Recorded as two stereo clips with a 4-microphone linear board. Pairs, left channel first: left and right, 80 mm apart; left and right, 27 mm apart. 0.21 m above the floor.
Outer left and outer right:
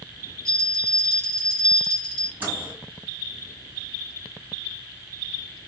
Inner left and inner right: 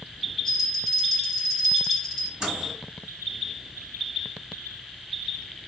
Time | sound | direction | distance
0.5 | a bell | 10° left (ahead or behind) | 1.7 m
2.4 | a microwave | 20° right (ahead or behind) | 1.5 m